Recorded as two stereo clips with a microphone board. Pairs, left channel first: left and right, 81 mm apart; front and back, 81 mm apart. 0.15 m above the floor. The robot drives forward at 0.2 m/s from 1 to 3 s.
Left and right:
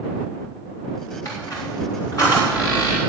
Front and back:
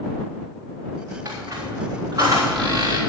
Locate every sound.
1.2 s a squeak: 130° left, 3 m; by 3.0 s 135° left, 3.5 m